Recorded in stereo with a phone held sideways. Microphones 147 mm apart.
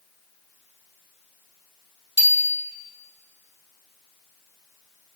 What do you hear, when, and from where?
2.2 s a bicycle bell: 25° left (ahead or behind), 2.5 m